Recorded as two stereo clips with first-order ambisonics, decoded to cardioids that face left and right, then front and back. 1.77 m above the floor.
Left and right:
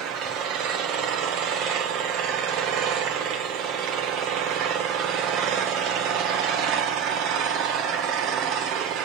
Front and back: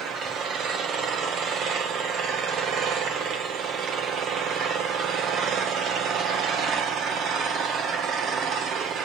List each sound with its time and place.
0.0 s an engine running: 125° right, 1.6 m